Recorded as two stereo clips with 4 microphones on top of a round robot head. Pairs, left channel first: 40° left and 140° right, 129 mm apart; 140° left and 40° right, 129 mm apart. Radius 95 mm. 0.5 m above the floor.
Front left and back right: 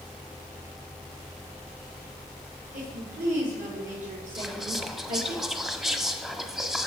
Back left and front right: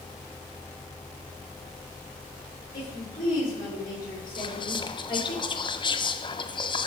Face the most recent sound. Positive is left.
turn(degrees=135)